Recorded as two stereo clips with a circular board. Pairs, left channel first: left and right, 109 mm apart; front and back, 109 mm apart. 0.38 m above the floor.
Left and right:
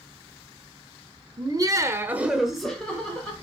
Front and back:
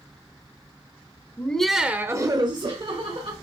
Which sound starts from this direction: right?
Laughter, at 1.4 s.